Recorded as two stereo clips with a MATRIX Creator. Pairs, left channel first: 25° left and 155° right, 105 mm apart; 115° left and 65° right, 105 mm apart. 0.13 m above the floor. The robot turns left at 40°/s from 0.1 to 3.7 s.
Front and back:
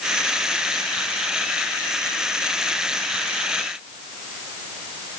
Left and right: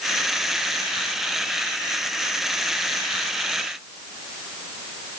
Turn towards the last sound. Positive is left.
No sound to turn to.